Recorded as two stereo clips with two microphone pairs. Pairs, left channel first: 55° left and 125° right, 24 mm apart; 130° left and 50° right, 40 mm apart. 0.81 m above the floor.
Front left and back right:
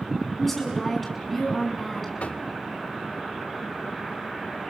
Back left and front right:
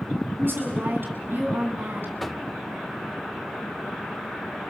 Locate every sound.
0.4 s a woman speaking: 25° right, 7 m
2.2 s knocking: 45° left, 1.3 m